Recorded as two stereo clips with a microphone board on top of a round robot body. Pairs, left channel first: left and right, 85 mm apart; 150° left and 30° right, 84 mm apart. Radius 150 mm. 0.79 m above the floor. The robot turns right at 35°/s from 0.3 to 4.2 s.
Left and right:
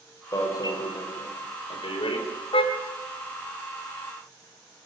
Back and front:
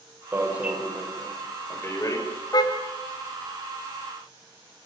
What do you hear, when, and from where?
0.3 s an alarm: 35° left, 5 m; by 2.2 s 100° left, 5 m
2.5 s a car horn: 105° left, 2.5 m; by 2.7 s 110° left, 2.5 m